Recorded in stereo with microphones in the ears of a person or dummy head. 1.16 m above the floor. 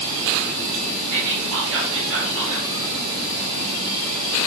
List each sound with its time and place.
1.1 s whispering: 70° right (ahead or behind), 1.3 m